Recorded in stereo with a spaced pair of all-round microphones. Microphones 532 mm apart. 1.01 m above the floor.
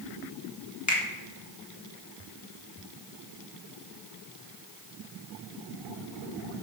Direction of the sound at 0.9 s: 30° left (ahead or behind).